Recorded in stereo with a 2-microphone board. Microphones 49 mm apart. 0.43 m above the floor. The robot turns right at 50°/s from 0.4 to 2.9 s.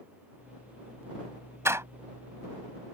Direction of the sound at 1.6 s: 65° right (ahead or behind).